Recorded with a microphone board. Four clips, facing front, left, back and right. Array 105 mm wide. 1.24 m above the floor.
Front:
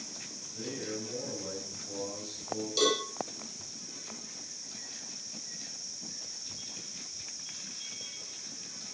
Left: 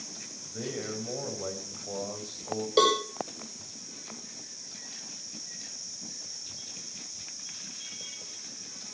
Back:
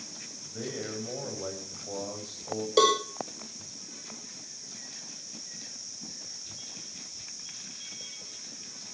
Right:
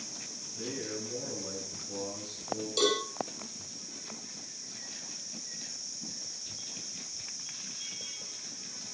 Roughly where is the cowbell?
Behind left.